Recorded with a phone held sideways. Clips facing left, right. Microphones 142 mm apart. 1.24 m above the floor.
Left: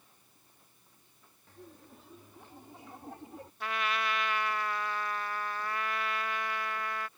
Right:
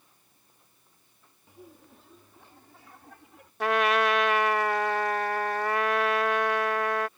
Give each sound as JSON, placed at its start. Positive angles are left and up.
{"t": 1.5, "sound": "laughter", "side_deg": -15}
{"t": 3.6, "sound": "a trumpet", "side_deg": -75}